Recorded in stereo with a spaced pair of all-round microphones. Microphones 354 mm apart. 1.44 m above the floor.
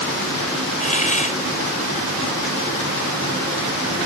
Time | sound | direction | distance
0.8 | a hiss | 20° left (ahead or behind) | ?